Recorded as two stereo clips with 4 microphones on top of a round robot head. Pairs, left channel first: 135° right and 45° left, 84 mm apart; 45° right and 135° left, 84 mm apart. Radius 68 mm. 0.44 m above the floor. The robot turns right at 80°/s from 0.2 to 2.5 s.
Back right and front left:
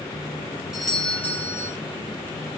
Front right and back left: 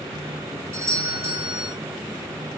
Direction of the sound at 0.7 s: 125° left.